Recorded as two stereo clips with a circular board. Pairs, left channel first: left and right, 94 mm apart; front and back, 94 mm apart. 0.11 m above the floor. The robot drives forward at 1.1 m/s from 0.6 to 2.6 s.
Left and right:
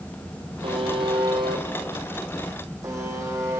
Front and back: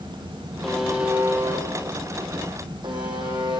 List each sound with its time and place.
0.6 s a buzzer: 85° right, 1.6 m; by 3.6 s 145° right, 2.5 m